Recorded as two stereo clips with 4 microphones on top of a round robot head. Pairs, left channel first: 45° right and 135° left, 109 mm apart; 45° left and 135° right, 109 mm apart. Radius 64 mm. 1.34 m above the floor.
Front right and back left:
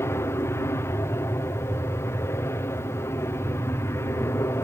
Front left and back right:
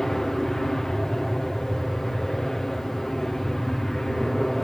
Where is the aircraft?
35° right.